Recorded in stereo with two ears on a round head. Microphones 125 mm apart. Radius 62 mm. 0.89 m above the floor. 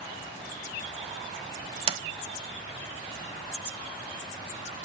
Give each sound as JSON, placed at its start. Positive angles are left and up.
{"t": 1.9, "sound": "a sliding door", "side_deg": -40, "distance_m": 1.5}